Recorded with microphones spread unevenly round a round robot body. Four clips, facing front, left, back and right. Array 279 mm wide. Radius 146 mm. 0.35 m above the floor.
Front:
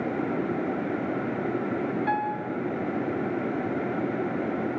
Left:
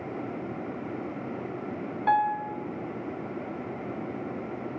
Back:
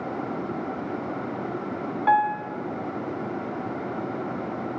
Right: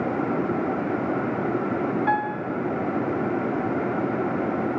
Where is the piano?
170° right, 1.5 m.